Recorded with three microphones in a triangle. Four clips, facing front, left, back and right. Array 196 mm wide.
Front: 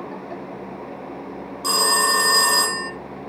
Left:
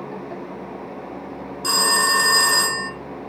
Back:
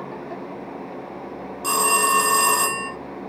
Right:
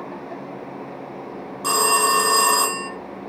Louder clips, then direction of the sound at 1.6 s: Right 2 dB, back 1 dB; 95° right.